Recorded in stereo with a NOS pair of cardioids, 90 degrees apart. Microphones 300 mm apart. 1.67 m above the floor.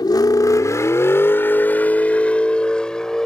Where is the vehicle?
15° left; by 3.3 s straight ahead.